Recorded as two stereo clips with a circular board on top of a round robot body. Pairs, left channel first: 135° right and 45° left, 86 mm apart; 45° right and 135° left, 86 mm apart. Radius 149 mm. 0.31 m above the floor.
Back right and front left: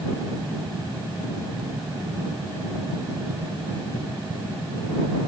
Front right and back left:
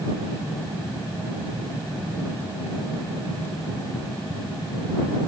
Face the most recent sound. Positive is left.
No sound to turn to.